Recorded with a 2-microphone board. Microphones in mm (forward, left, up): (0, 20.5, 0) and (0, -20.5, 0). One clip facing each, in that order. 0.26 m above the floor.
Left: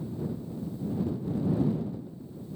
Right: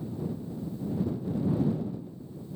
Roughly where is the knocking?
No knocking in this recording.